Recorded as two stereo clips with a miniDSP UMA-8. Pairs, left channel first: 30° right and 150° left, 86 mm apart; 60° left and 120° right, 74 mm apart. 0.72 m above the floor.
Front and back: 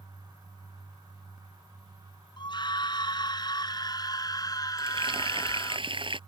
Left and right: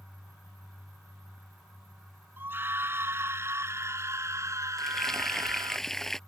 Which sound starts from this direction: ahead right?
A scream, at 2.4 s.